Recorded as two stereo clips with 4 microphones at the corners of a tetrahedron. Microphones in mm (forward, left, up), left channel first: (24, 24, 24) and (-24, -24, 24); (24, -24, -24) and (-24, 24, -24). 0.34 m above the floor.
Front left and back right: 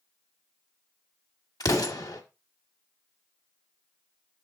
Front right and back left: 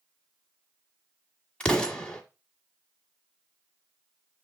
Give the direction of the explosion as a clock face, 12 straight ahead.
11 o'clock.